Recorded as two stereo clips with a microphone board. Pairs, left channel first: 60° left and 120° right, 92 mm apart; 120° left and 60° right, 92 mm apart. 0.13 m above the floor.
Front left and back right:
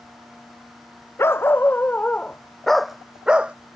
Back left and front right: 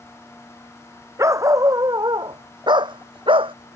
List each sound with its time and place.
1.2 s a dog barking: 5° right; by 3.5 s 45° right